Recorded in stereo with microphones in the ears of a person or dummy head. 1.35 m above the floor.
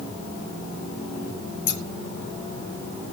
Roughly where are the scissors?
Left.